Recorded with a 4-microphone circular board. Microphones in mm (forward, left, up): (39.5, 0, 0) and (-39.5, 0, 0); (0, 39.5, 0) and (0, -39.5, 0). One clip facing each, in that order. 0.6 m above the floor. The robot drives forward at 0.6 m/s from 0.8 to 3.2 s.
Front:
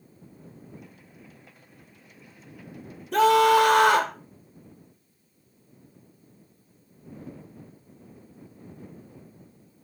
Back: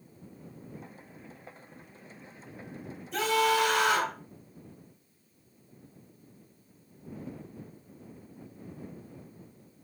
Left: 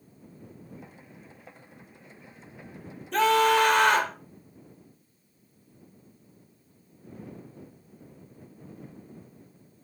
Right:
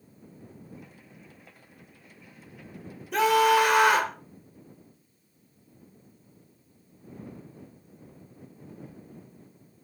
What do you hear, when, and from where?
3.1 s a scream: 10° right, 2 m